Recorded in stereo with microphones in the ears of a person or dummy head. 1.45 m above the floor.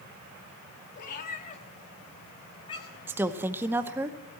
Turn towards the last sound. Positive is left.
turn(degrees=-10)  # may be behind; listen again after turning